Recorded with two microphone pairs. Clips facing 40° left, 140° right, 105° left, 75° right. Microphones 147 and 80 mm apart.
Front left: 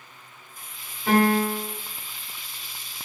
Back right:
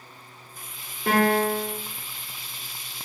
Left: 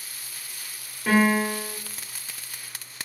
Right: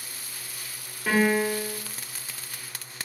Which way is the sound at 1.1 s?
165° right.